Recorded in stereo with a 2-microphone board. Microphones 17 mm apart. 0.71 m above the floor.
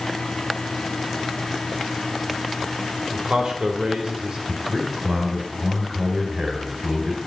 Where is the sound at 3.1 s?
65° right (ahead or behind), 3 m.